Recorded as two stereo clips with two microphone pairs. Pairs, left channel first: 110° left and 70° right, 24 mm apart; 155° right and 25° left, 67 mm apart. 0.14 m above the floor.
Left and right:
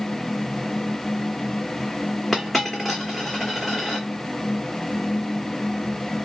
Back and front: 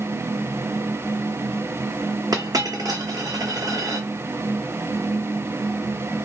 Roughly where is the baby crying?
No baby crying in this recording.